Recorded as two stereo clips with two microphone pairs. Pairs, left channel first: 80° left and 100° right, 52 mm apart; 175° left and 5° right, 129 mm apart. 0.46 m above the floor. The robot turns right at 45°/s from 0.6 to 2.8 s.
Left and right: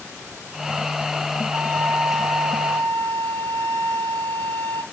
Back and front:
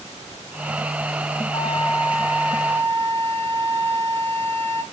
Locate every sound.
1.5 s a flute: 150° right, 1.3 m; by 4.8 s 90° right, 1.3 m